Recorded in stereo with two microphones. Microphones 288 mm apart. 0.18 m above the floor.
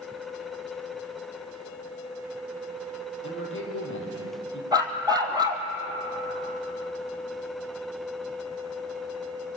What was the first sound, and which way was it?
A man speaking, 45° left (ahead or behind).